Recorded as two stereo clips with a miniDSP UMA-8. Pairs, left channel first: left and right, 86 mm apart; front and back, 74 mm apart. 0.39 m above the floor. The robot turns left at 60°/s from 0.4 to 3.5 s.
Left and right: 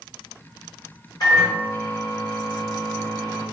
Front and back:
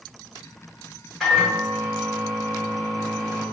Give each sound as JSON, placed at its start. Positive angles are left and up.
{"t": 1.2, "sound": "a microwave", "azimuth_deg": 90, "distance_m": 1.7}